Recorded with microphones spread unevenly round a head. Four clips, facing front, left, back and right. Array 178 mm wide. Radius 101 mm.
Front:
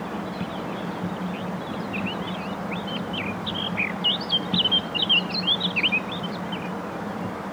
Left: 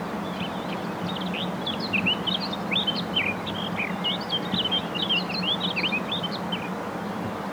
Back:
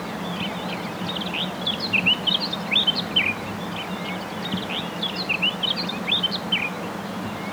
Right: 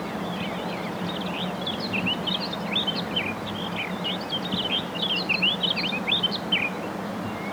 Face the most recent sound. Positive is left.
No sound to turn to.